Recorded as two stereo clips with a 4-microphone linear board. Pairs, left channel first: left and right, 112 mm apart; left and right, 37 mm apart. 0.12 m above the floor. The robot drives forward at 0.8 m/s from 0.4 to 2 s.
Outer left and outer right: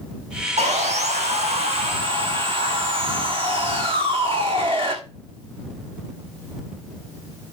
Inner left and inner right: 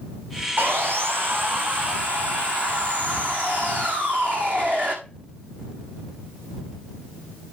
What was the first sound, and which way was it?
Sawing, 80° right.